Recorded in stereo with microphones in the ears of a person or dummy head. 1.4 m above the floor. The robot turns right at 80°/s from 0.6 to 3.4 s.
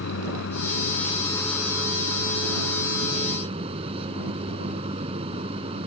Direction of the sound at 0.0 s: 105° left.